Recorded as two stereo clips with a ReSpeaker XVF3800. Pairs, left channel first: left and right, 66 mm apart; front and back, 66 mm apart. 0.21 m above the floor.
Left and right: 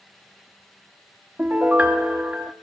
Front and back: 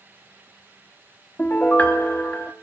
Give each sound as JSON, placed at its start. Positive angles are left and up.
{"t": 1.4, "sound": "a piano", "azimuth_deg": -45, "distance_m": 0.8}